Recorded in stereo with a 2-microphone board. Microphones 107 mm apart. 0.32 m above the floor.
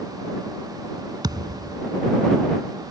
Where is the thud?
40° right (ahead or behind).